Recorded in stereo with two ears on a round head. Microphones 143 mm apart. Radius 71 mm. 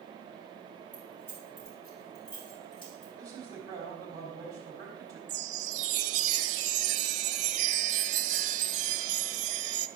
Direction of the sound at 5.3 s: 50° right (ahead or behind).